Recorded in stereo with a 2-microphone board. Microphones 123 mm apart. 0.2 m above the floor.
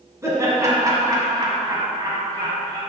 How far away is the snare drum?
I don't hear a snare drum.